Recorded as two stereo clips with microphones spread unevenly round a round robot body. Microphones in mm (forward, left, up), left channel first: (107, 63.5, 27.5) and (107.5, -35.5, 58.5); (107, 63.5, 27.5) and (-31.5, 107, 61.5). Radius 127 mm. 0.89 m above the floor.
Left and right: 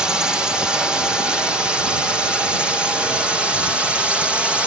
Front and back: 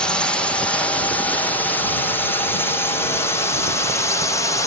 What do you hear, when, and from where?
0.0 s a drone: 20° left; by 4.7 s 5° left